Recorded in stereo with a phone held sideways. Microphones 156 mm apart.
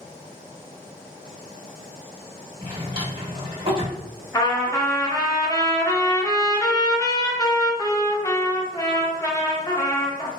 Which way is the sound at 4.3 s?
25° left (ahead or behind).